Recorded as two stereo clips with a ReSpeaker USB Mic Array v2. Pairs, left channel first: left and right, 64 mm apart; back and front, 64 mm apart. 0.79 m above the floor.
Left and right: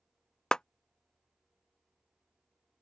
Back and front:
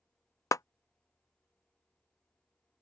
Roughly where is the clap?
Behind.